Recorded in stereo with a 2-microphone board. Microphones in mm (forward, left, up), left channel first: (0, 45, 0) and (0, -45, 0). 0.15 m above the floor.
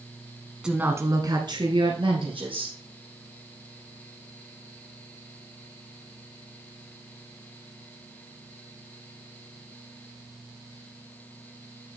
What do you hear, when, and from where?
0.6 s a woman speaking: 10° right (ahead or behind), 1.1 m; by 2.8 s 70° right (ahead or behind), 3.5 m